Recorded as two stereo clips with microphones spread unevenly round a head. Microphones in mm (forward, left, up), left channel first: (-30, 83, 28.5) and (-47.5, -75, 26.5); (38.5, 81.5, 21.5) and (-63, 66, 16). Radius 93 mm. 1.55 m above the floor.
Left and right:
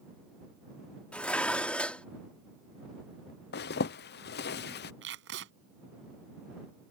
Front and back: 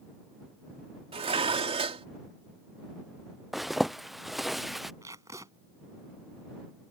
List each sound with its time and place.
1.1 s dishes clattering: 165° left
3.5 s a zipper: 100° left
5.0 s tape being pulled: 95° right